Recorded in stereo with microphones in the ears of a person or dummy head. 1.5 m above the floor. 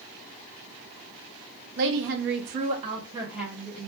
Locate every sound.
1.8 s a woman speaking: 60° right (ahead or behind), 0.7 m; by 3.9 s 5° left (ahead or behind), 0.9 m